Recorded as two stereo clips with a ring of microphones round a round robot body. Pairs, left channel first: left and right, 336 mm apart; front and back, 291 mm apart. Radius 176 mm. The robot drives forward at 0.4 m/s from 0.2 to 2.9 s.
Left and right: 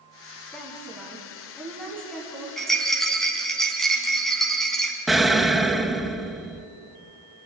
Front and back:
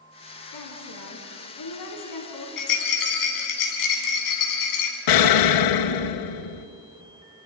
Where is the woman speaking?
Straight ahead, 5 m; by 2.5 s 5° left, 4.5 m.